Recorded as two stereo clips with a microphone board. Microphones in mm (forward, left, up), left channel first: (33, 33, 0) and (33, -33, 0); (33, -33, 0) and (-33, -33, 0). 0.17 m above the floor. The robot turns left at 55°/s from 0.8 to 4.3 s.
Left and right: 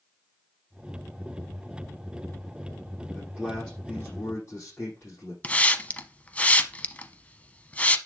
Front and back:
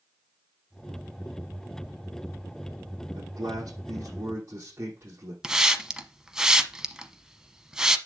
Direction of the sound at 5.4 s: 115° left.